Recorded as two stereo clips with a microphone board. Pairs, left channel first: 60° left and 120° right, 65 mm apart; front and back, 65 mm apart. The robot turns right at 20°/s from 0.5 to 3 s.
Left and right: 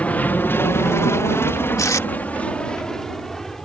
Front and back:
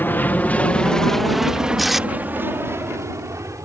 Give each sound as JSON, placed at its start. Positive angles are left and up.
{"t": 0.0, "sound": "an aircraft", "azimuth_deg": 15}
{"t": 1.8, "sound": "tape being pulled", "azimuth_deg": 90}